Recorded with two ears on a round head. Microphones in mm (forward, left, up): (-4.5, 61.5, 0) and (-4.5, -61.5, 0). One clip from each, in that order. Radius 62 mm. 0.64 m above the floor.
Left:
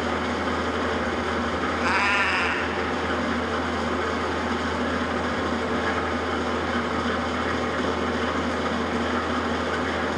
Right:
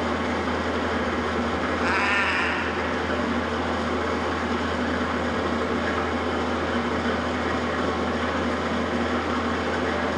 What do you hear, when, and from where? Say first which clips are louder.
0.0 s an engine running: even; 15° left (ahead or behind), 3 m
1.8 s a cat meowing: left 1 dB; 15° left (ahead or behind), 1.6 m